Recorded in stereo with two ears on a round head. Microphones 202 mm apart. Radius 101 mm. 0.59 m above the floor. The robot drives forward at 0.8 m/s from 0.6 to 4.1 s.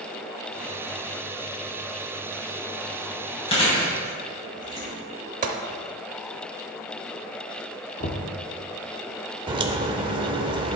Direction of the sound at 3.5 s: 25° left (ahead or behind).